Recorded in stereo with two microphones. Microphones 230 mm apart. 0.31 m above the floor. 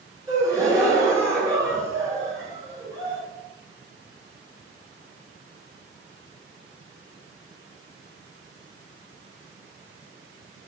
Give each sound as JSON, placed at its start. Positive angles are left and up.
{"t": 0.3, "sound": "a gasp", "side_deg": -15, "distance_m": 4.5}